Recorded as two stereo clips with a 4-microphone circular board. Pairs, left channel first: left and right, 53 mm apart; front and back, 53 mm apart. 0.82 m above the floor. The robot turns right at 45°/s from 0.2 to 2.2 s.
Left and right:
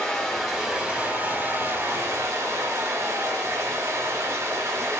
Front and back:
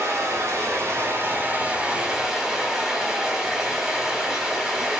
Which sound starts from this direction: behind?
Running water, at 0.0 s.